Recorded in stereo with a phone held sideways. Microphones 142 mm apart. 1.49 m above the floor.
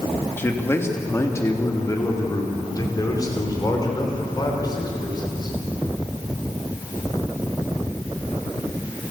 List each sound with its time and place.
0.4 s a man speaking: 15° left (ahead or behind), 2.5 m; by 5.5 s 30° left (ahead or behind), 6.5 m